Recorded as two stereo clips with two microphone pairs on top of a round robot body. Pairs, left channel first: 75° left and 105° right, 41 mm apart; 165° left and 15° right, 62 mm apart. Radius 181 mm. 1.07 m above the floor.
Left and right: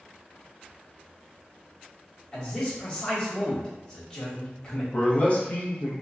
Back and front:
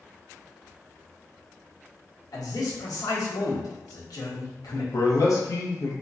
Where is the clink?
No clink in this recording.